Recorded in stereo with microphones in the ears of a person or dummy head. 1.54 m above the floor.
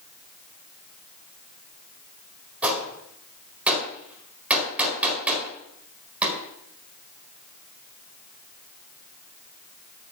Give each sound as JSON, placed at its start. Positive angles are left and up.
{"t": 2.6, "sound": "a gunshot", "side_deg": 0, "distance_m": 4.5}